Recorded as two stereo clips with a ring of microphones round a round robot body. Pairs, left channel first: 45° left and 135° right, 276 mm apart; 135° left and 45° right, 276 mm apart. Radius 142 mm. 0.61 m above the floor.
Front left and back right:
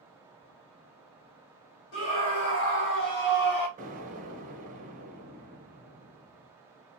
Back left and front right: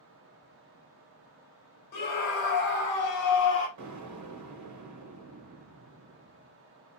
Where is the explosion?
70° right, 1.4 m.